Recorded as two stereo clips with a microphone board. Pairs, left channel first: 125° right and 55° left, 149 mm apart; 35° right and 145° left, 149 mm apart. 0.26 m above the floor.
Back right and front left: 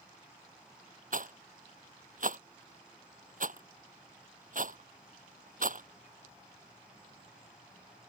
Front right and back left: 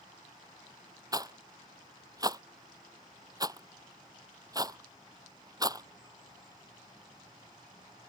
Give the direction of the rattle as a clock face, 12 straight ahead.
9 o'clock.